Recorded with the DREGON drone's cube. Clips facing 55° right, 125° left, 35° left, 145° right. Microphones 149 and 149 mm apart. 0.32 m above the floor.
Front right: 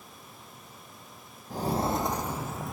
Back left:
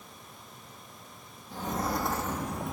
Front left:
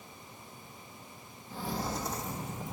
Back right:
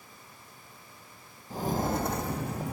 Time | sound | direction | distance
1.5 | footsteps | 100° right | 0.8 m